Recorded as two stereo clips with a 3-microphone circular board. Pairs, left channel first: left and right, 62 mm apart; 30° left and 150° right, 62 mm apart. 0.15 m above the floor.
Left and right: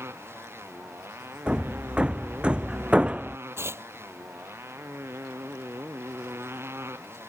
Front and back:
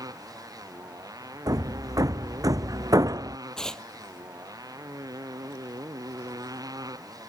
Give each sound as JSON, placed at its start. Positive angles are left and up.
{"t": 0.0, "sound": "a motorcycle", "azimuth_deg": -140}
{"t": 1.5, "sound": "hammering", "azimuth_deg": -165}
{"t": 3.6, "sound": "tearing paper", "azimuth_deg": -50}